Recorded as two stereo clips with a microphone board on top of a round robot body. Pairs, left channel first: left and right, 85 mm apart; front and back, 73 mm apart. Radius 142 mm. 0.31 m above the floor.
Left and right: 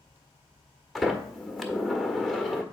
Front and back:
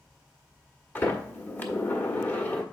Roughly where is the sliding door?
Ahead.